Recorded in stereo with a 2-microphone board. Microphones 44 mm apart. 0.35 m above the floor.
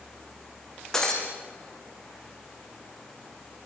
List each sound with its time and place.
0.9 s breaking glass: 10° left (ahead or behind), 5 m